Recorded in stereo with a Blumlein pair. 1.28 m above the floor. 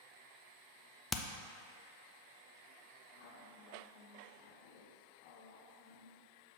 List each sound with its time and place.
1.1 s hammering: 15° left, 0.5 m
3.1 s a woman speaking: 45° left, 1.1 m